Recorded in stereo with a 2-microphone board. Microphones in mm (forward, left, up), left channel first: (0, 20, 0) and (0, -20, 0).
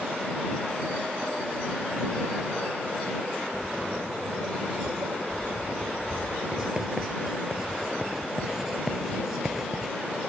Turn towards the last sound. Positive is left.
turn(degrees=-10)  # may be behind; listen again after turning